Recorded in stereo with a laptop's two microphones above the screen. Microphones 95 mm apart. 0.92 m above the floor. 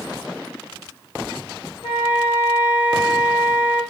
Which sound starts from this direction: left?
A flute, at 1.8 s.